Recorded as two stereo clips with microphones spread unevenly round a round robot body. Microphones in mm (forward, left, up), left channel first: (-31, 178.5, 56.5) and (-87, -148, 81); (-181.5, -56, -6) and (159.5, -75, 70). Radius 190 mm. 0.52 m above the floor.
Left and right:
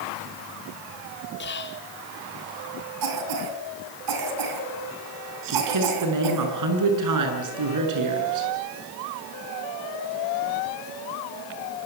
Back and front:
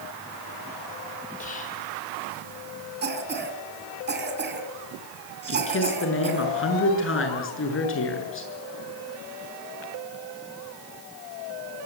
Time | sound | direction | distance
1.4 | whispering | 125° left | 1.4 m
3.0 | a cough | 65° right | 5.5 m
5.5 | a man speaking | 130° right | 7.5 m